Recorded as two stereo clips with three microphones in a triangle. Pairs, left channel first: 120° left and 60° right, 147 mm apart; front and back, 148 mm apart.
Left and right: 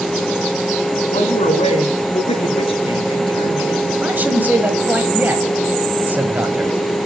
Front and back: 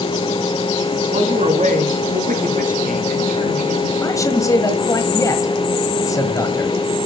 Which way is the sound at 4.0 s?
Straight ahead.